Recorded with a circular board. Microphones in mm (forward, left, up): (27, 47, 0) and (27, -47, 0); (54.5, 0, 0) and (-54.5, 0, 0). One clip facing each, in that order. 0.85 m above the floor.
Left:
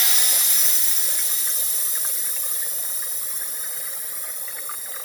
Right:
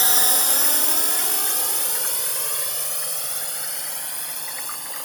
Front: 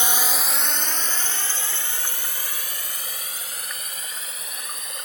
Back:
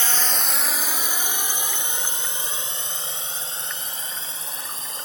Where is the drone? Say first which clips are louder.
Right 7 dB, front 1 dB; 65° right; by 5.1 s 120° right.